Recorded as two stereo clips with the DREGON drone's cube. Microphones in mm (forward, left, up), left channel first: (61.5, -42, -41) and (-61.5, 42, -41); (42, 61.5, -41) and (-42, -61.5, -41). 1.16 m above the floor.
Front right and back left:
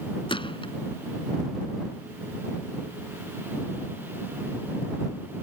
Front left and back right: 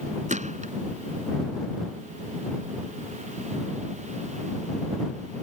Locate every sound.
0.3 s a gunshot: 90° right